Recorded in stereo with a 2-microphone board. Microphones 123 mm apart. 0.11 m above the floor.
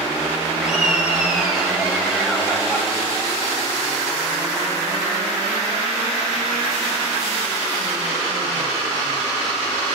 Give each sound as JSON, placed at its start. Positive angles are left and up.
{"t": 0.6, "sound": "laughter", "side_deg": -5, "distance_m": 1.5}